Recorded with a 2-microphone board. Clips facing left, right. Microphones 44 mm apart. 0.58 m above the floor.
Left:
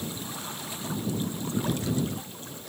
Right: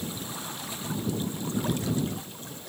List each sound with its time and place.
Only background noise.